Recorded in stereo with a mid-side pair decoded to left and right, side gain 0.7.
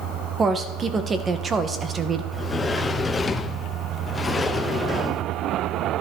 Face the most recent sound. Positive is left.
turn(degrees=15)